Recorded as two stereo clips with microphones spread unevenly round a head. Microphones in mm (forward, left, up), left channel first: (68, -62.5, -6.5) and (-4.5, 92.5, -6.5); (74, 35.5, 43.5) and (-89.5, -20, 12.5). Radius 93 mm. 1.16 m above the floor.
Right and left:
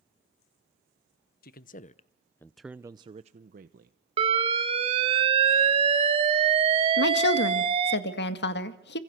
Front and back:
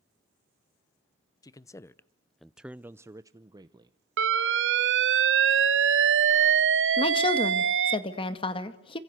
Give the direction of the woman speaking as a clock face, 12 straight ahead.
2 o'clock.